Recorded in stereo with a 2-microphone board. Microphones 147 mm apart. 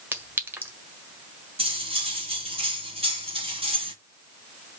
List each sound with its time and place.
0.1 s a clink: 15° right (ahead or behind), 1.5 m
1.6 s cutlery clinking: 40° right (ahead or behind), 1.8 m